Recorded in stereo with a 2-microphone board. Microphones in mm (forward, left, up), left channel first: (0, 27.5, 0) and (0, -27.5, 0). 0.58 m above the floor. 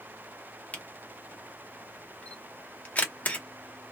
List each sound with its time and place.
0.7 s a camera shutter: 25° left (ahead or behind), 0.8 m